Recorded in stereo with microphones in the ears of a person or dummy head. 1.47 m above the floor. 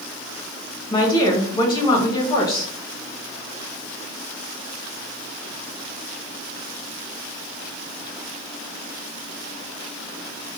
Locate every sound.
0.9 s a woman speaking: 25° left (ahead or behind), 1.4 m